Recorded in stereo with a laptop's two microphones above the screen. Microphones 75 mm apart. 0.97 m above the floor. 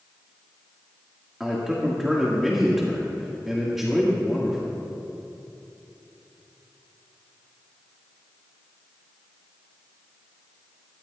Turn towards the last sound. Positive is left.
turn(degrees=-5)  # may be behind; listen again after turning